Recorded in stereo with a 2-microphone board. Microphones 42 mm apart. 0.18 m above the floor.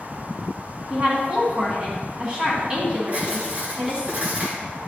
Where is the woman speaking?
25° right (ahead or behind), 1.5 m.